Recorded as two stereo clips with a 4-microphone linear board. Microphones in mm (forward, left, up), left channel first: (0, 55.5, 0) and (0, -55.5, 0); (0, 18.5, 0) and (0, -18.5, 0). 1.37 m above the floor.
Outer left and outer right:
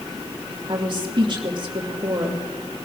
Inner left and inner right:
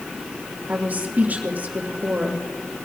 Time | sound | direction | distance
0.7 | a woman speaking | 50° right (ahead or behind) | 2.5 m